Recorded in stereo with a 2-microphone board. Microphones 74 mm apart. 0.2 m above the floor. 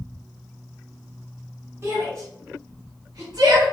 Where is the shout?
35° right (ahead or behind), 1.6 m; by 3.6 s 60° right (ahead or behind), 3 m.